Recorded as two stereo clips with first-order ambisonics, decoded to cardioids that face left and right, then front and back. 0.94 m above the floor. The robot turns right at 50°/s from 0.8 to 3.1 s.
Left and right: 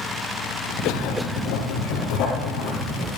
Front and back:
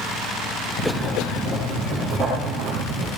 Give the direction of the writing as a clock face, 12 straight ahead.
11 o'clock.